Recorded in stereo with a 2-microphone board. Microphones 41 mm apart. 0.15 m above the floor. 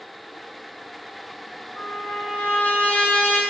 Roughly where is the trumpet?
Left.